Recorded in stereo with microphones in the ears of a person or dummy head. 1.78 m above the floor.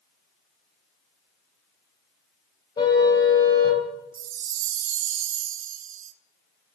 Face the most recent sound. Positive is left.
turn(degrees=-45)  # may be behind; listen again after turning